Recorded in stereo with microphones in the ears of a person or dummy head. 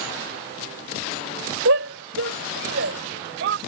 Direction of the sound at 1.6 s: 70° right (ahead or behind).